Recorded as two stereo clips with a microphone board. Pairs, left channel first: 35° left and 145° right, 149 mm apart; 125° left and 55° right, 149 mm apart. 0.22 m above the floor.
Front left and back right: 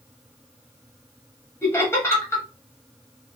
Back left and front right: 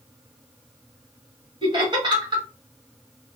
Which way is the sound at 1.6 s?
25° right.